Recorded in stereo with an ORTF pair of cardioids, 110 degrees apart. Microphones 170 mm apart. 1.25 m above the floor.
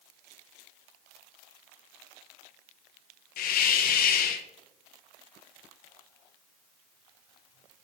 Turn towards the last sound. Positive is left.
turn(degrees=60)